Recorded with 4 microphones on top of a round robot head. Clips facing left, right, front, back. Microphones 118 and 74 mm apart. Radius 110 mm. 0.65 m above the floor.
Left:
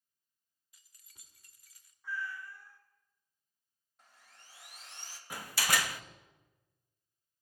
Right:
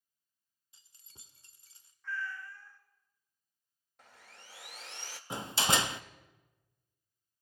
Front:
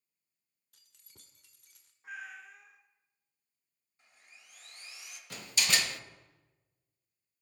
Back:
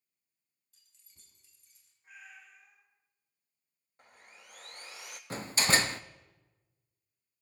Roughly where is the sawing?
Behind right.